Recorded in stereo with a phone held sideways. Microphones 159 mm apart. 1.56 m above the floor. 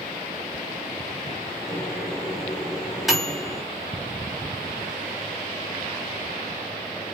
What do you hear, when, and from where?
1.7 s a microwave: centre (ahead or behind), 3.5 m